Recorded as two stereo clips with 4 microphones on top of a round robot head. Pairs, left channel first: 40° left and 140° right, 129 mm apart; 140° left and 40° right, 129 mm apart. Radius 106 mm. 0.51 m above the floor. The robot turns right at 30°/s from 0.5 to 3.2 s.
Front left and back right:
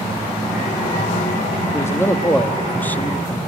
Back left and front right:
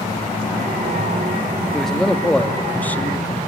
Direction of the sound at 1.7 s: 55° left.